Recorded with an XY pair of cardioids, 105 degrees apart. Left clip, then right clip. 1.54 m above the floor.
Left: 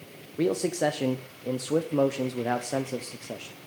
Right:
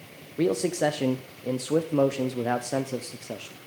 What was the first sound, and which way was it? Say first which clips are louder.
A man speaking: right 1 dB; 5° right.